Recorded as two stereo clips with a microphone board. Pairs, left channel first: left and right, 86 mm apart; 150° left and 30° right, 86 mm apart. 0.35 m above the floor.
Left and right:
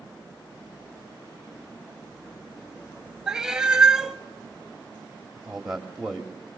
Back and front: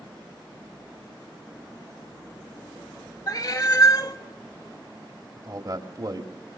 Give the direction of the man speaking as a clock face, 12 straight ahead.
12 o'clock.